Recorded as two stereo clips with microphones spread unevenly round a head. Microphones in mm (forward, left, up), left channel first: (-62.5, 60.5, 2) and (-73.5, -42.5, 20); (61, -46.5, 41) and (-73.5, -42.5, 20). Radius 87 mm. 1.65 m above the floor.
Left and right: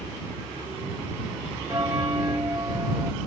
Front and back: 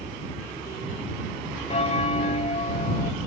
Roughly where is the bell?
Ahead right.